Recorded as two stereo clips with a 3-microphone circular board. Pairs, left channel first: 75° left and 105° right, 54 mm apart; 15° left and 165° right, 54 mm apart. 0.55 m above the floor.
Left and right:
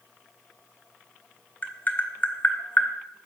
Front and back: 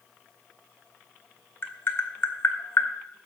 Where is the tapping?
30° left, 1.1 m.